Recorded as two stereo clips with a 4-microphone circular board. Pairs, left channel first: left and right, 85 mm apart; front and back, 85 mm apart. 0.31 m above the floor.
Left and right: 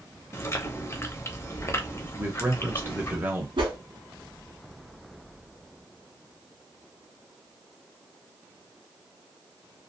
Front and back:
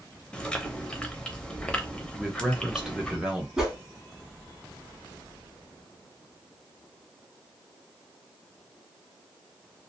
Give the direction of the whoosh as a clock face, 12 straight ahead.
3 o'clock.